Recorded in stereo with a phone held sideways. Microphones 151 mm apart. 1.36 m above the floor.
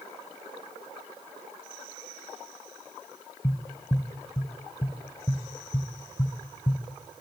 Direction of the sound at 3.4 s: 20° left (ahead or behind).